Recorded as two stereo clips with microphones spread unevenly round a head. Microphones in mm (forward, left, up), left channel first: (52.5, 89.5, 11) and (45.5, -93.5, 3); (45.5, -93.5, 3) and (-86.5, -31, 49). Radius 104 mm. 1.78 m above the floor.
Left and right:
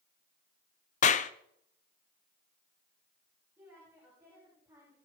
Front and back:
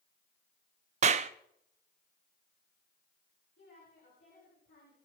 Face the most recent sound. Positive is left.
turn(degrees=-15)